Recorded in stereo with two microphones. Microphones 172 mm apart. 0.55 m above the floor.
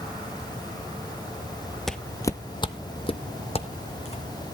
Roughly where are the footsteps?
Centre.